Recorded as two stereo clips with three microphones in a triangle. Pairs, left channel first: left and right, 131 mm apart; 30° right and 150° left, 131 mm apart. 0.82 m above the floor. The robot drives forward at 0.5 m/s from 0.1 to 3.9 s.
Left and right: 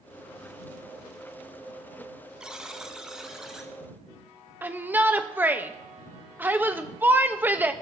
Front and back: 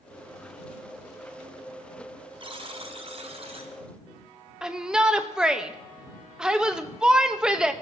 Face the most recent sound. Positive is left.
turn(degrees=-135)